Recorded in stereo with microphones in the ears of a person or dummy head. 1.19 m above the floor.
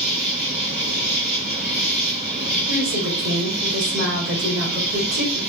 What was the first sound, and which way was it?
An insect, 5° right (ahead or behind).